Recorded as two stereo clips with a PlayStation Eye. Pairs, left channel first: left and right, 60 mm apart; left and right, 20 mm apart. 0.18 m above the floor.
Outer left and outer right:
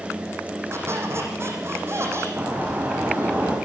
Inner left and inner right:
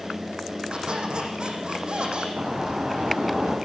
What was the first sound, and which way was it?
A squeak, 45° right (ahead or behind).